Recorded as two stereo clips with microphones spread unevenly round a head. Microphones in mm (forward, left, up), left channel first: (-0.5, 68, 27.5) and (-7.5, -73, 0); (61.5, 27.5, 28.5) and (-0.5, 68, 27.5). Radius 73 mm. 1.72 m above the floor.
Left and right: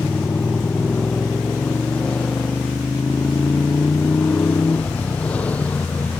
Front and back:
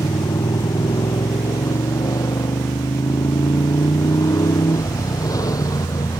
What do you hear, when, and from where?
0.0 s a motorcycle: straight ahead; by 6.2 s 5° left